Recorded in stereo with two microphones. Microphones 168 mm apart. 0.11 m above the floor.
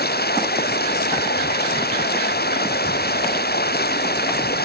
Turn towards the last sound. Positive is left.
turn(degrees=75)  # may be behind; listen again after turning